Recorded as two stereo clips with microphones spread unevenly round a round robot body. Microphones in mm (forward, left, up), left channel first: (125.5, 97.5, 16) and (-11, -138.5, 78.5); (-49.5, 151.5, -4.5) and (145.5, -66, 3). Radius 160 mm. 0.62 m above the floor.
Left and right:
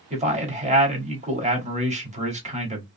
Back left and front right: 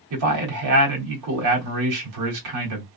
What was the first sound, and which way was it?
A man speaking, 50° right.